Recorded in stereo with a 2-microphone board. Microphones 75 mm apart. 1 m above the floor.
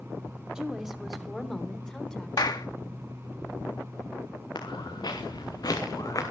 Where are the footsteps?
70° left (ahead or behind), 5.5 m; by 6.3 s 45° left (ahead or behind), 4 m.